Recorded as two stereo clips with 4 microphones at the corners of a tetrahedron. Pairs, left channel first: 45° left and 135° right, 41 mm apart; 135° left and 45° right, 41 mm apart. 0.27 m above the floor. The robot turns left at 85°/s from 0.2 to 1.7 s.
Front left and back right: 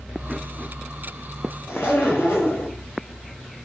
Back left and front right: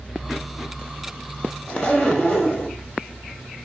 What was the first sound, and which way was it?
A zipper, 70° left.